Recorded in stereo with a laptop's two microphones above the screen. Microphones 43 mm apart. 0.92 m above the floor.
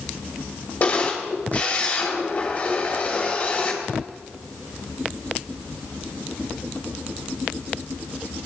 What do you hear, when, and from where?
0.8 s a camera shutter: 35° left (ahead or behind), 3 m